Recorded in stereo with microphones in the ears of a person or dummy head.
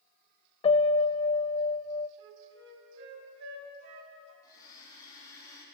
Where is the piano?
35° left (ahead or behind), 0.5 m.